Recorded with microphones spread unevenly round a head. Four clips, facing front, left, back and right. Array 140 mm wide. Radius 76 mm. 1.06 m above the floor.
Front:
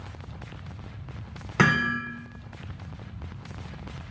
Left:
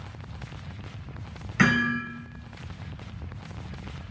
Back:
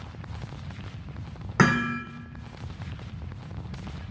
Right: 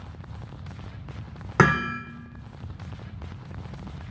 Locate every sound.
1.6 s hammering: 95° right, 3 m